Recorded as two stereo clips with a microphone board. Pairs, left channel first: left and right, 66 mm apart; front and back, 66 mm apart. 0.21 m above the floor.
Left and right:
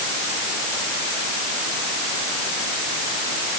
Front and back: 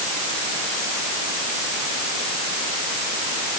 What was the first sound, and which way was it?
Only background noise.